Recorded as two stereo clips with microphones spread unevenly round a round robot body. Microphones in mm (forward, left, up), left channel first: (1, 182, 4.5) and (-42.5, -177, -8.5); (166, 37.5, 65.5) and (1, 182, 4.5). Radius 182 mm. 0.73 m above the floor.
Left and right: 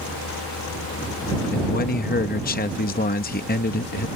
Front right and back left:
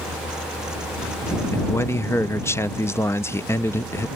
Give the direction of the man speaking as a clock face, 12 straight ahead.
10 o'clock.